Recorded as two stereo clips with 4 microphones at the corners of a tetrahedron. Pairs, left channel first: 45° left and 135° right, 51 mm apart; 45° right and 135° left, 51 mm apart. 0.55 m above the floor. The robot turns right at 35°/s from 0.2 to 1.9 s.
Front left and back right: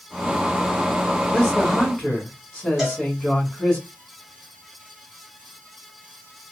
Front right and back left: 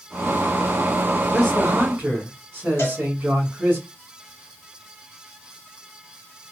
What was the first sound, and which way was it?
A man speaking, 90° left.